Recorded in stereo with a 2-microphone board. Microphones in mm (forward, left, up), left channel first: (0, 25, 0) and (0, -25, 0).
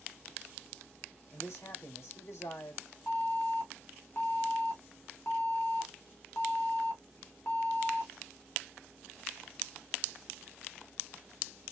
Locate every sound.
1.3 s a man speaking: 75° left (ahead or behind), 2.5 m
3.1 s an alarm: 60° left (ahead or behind), 2 m